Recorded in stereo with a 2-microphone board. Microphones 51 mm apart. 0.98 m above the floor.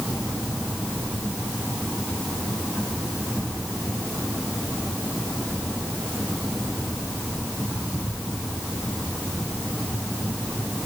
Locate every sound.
Only background noise.